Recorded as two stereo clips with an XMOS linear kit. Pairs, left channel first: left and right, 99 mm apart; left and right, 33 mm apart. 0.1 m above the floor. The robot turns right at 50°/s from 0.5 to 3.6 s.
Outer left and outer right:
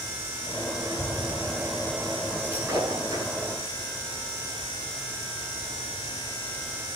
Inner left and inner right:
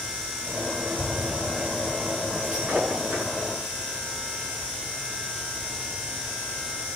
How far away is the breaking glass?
About 6.5 m.